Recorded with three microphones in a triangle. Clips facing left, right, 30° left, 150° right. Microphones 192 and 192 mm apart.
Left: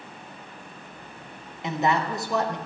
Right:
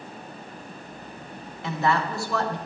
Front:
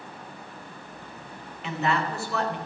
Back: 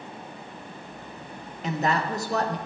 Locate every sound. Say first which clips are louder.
1.6 s a woman speaking: even, back 1 dB; 160° left, 1.7 m